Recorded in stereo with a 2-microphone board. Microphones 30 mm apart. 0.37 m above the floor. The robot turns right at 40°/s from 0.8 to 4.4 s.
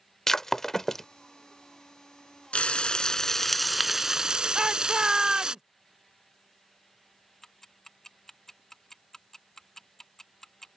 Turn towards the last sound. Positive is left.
turn(degrees=15)  # may be behind; listen again after turning